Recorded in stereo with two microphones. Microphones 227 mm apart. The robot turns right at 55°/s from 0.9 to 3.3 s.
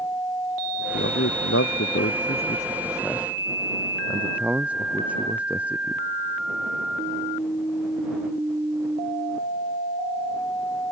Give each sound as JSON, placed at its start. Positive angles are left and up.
{"t": 0.9, "sound": "a man speaking", "side_deg": 55}